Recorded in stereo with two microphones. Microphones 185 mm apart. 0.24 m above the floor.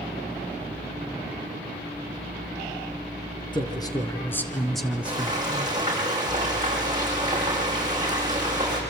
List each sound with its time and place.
3.5 s a man speaking: 25° left (ahead or behind), 3.5 m; by 5.7 s 25° right (ahead or behind), 2 m
5.0 s frying: 20° right (ahead or behind), 8.5 m